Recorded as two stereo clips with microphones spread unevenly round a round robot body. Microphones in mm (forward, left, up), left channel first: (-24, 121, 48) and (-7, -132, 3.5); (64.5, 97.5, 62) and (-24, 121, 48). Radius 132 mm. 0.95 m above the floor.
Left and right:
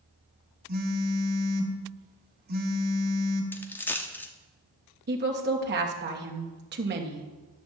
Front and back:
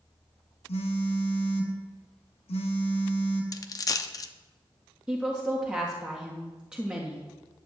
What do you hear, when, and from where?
0.7 s a phone buzzing: 30° right, 1.2 m
3.5 s a dropped coin: 15° left, 0.5 m
5.1 s a woman speaking: 120° right, 1.5 m